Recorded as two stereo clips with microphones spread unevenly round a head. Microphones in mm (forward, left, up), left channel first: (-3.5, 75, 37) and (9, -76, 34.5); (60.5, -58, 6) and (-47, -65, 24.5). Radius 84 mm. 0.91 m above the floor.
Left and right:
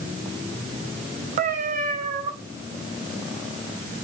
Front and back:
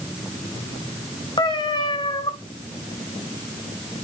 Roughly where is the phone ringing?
I don't hear a phone ringing.